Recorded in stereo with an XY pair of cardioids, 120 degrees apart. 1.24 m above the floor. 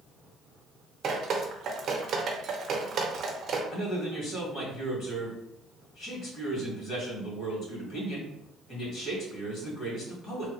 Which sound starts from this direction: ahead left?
A man speaking, at 3.7 s.